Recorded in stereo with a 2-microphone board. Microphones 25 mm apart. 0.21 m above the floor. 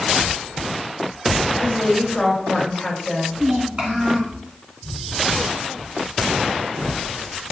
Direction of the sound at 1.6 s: 10° left (ahead or behind).